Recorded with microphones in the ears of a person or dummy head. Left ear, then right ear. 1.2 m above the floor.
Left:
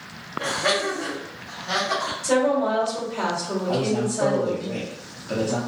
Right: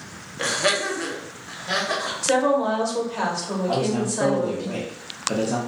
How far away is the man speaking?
About 0.6 m.